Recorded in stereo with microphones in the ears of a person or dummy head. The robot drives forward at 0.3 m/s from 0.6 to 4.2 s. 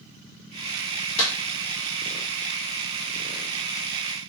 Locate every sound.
1.2 s a clap: 65° left (ahead or behind), 1.4 m; by 1.3 s 70° left (ahead or behind), 1.4 m